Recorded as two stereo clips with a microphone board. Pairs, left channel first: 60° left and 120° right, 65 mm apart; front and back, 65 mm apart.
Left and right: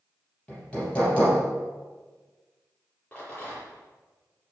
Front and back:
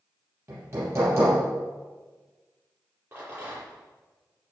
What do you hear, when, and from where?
0.5 s hammering: 130° left, 5.5 m
3.1 s a rattle: 130° left, 6.5 m